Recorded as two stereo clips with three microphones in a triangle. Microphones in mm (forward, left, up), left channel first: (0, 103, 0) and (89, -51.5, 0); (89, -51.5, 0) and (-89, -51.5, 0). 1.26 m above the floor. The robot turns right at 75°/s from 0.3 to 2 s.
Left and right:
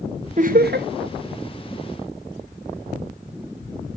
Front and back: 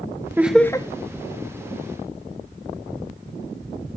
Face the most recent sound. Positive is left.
turn(degrees=20)